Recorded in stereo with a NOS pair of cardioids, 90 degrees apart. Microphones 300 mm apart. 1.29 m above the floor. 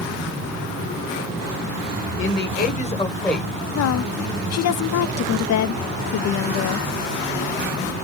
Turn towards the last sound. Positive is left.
turn(degrees=60)